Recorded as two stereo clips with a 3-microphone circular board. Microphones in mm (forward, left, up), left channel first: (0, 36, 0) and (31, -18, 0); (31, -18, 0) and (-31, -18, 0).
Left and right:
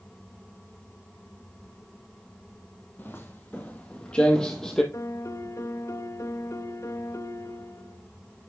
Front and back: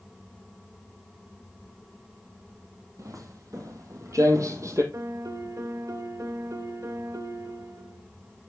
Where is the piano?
155° left, 0.7 m.